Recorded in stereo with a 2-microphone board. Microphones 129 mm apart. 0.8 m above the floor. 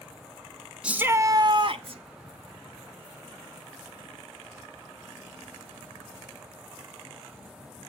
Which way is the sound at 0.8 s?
10° right (ahead or behind).